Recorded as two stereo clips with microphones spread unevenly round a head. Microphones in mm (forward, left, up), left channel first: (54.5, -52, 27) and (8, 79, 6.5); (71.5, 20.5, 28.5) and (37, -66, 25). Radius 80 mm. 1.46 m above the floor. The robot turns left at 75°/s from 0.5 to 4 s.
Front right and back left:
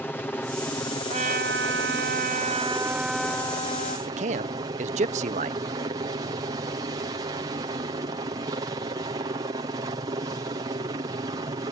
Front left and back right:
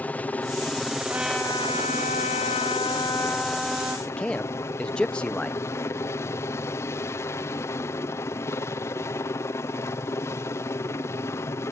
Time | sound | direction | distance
0.0 | a helicopter | 10° left | ?
1.1 | a trumpet | 170° left | ?
4.1 | a man speaking | 150° left | ?